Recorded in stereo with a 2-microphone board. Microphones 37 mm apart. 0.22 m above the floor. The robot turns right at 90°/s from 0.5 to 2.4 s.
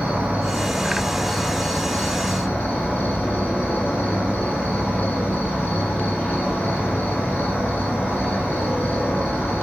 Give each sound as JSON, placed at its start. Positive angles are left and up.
{"t": 0.0, "sound": "an insect", "azimuth_deg": -70, "distance_m": 1.5}